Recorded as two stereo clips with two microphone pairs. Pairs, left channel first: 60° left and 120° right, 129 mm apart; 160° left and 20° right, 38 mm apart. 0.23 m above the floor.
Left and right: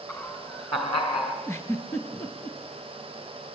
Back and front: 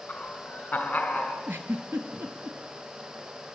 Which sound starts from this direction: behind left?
Laughter, at 0.1 s.